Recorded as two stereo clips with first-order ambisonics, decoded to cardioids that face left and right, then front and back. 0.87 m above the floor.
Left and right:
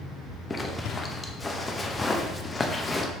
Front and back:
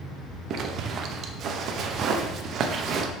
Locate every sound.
0.5 s a zipper: 160° left, 0.6 m